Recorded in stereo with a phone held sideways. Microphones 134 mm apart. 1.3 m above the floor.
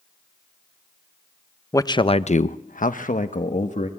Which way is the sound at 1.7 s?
25° left (ahead or behind).